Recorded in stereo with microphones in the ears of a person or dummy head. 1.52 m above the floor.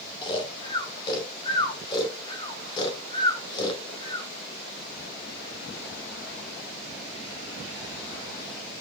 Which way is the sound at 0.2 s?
30° left (ahead or behind).